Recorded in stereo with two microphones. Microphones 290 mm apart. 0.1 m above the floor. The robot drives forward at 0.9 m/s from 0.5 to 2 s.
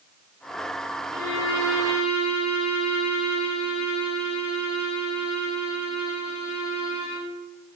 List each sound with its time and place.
1.1 s a violin: 55° left (ahead or behind), 3.5 m; by 7.3 s 50° left (ahead or behind), 4 m